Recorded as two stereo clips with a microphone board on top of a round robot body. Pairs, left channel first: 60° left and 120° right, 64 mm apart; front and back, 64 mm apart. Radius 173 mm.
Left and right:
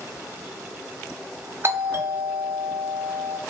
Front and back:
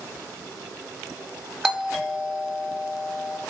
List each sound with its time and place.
1.6 s a doorbell: 90° right, 1.2 m